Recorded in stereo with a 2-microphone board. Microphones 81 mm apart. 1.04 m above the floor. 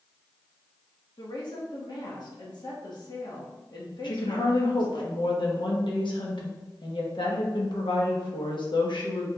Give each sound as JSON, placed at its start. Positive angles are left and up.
{"t": 1.2, "sound": "a woman speaking", "side_deg": 60, "distance_m": 1.4}
{"t": 4.0, "sound": "a woman speaking", "side_deg": 70, "distance_m": 1.1}